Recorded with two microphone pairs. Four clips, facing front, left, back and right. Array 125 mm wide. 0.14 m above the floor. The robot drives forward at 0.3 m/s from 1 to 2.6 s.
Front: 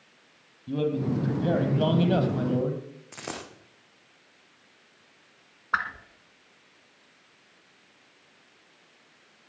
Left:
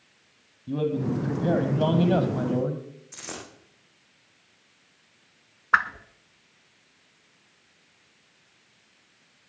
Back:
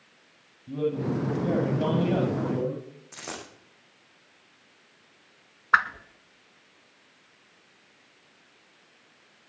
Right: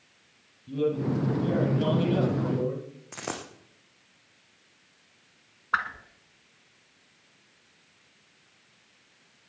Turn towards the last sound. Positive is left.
turn(degrees=145)